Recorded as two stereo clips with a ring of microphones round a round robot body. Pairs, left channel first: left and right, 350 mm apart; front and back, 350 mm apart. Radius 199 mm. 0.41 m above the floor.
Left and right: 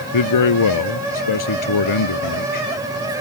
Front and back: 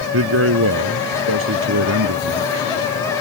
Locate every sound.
0.1 s a man speaking: 120° left